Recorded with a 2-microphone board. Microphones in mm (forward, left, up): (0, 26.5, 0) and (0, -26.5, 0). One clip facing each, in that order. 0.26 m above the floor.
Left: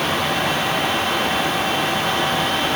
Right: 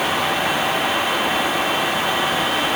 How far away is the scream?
I don't hear a scream.